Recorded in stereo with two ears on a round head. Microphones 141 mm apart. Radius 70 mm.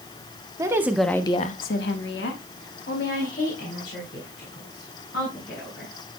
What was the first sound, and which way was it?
A woman speaking, 20° right (ahead or behind).